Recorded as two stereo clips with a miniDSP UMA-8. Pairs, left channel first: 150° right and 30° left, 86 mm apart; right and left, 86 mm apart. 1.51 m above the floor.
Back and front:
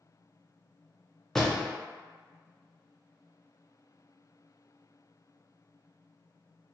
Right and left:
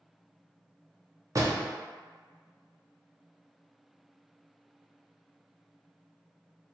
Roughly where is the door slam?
Behind left.